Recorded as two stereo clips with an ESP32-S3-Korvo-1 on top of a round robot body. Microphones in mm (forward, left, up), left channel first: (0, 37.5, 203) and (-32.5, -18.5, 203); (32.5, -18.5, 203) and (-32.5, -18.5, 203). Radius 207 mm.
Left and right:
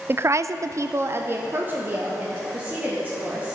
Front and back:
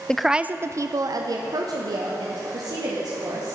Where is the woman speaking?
75° right, 0.5 m; by 3.6 s 170° left, 2 m.